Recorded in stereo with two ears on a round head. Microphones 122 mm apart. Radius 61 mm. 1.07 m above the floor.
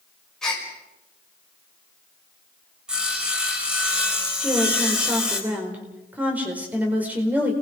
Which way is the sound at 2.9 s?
5° right (ahead or behind).